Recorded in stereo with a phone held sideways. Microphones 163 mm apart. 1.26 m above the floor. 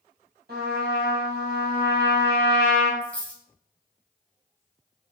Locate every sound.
0.5 s a trumpet: 75° right (ahead or behind), 1.4 m
3.0 s a dropped coin: 10° left (ahead or behind), 1.3 m